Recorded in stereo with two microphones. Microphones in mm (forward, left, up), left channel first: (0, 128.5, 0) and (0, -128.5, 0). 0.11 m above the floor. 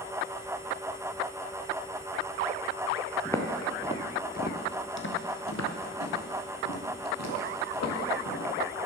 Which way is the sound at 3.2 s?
10° left (ahead or behind).